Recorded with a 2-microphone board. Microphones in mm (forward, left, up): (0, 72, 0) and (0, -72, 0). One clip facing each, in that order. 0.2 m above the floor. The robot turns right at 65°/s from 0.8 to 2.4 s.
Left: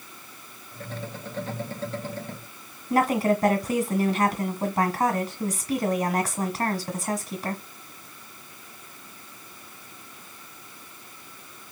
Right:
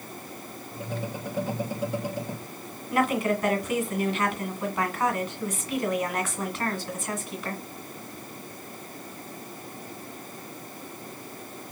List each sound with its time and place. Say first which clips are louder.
2.9 s a woman speaking: left 3 dB; 40° left (ahead or behind), 1.4 m